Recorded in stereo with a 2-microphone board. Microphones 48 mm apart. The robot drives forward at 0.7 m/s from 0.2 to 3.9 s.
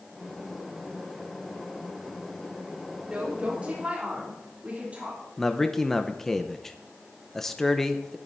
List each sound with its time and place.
3.0 s a woman speaking: 25° right (ahead or behind), 3.5 m; by 5.2 s 30° right (ahead or behind), 3 m
5.4 s a man speaking: 10° left (ahead or behind), 0.8 m